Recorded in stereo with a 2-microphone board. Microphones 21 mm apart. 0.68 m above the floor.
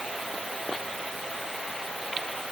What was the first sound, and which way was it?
Only background noise.